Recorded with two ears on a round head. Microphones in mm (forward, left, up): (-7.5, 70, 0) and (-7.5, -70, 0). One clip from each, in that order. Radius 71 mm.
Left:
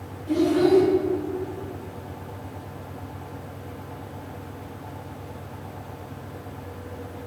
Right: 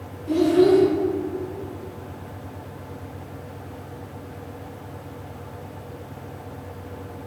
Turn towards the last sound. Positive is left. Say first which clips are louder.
# right 3 dB
turn(degrees=-25)  # may be behind; listen again after turning